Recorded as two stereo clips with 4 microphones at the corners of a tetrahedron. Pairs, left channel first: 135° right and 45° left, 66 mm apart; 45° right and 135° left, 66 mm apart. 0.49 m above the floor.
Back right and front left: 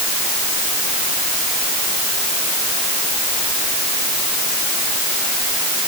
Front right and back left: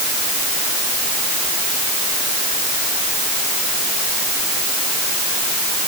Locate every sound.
Only background noise.